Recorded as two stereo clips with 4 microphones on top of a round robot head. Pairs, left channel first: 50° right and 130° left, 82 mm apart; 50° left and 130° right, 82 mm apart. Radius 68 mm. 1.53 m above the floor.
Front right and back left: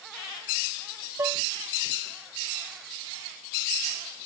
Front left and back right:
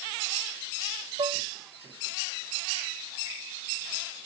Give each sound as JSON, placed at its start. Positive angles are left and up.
{"t": 1.2, "sound": "dishes clattering", "azimuth_deg": -170}